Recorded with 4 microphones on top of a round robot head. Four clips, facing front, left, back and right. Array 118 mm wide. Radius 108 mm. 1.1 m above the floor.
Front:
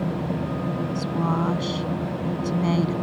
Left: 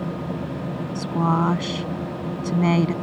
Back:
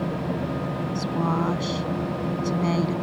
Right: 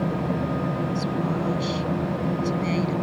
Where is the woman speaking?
90° left.